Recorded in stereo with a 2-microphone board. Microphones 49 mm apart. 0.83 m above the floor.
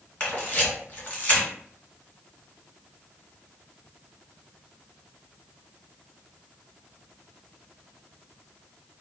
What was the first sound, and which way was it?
A camera shutter, 30° left (ahead or behind).